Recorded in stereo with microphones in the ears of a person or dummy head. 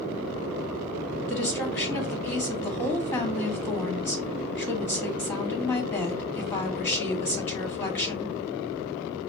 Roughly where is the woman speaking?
Centre.